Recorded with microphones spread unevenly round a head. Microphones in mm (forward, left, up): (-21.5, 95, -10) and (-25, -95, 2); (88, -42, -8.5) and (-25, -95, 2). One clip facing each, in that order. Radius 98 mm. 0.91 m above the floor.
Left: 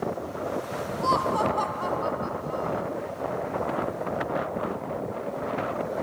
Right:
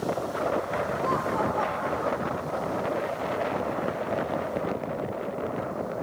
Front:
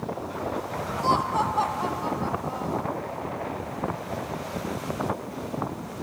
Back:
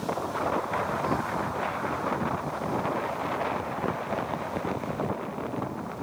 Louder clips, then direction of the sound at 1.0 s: Left 5 dB, front 4 dB; 45° left.